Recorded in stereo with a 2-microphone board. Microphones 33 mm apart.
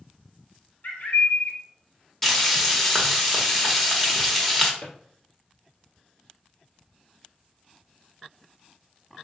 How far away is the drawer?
About 1.9 m.